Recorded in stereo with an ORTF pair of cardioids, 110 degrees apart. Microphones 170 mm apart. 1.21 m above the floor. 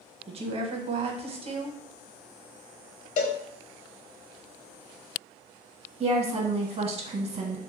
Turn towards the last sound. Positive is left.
turn(degrees=-40)